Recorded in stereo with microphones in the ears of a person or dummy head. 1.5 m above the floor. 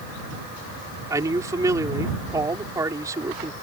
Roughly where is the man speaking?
Centre.